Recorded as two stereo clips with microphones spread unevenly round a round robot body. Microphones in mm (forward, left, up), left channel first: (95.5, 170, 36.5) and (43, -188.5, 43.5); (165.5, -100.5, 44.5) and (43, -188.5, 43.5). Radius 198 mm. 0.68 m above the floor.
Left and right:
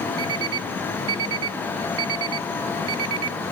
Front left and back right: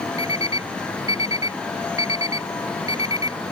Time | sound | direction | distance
0.2 | an alarm clock | 75° right | ?